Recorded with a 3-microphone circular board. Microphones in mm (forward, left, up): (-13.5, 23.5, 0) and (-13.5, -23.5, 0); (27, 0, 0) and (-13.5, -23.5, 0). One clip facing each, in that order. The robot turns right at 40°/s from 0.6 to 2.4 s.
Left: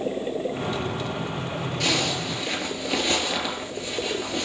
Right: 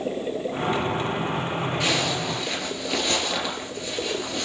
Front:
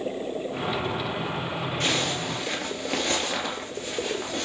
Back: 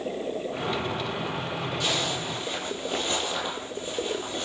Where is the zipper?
20° right, 2.5 m; by 4.5 s 5° left, 2.5 m.